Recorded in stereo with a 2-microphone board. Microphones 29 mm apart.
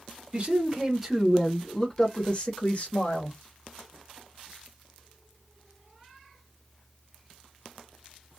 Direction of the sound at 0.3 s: 30° right (ahead or behind).